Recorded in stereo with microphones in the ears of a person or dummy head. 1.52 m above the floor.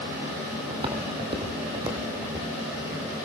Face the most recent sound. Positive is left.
turn(degrees=-20)  # may be behind; listen again after turning